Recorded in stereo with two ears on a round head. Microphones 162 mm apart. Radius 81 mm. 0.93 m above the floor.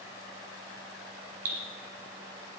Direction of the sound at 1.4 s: 50° right (ahead or behind).